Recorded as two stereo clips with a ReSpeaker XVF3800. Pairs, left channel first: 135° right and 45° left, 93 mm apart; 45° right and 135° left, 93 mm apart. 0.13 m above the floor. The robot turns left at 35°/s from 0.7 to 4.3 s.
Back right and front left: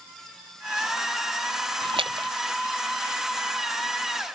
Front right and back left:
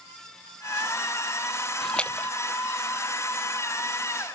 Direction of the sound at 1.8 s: 40° left.